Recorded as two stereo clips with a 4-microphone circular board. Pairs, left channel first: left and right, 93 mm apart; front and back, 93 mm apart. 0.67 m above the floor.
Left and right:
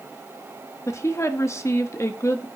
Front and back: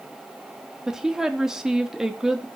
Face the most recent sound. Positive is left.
turn(degrees=100)